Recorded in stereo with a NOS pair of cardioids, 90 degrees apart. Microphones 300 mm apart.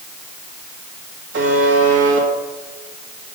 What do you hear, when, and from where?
1.3 s a buzzer: 40° right, 2 m